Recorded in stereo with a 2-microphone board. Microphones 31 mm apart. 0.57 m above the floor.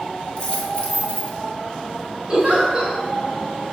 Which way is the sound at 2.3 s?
30° right (ahead or behind).